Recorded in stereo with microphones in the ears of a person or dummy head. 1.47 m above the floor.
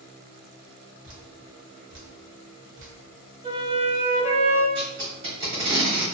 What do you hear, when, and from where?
1.0 s dripping: 75° right (ahead or behind), 1.1 m
3.4 s a flute: 35° right (ahead or behind), 1.4 m
4.8 s tape being pulled: 35° right (ahead or behind), 1.0 m